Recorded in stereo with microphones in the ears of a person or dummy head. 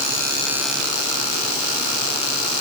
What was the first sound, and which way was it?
Only background noise.